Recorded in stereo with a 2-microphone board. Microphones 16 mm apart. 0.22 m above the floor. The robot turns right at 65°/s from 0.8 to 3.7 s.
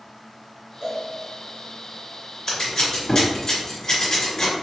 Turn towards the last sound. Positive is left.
turn(degrees=40)  # may be behind; listen again after turning